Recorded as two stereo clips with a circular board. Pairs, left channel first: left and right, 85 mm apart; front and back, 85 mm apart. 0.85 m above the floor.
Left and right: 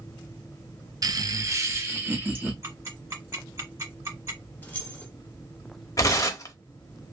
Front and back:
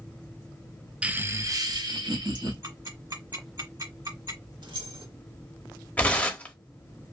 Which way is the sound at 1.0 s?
105° right.